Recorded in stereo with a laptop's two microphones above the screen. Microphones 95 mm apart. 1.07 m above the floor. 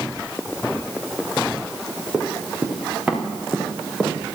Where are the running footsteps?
20° right (ahead or behind), 3.5 m; by 4.2 s centre (ahead or behind), 4 m.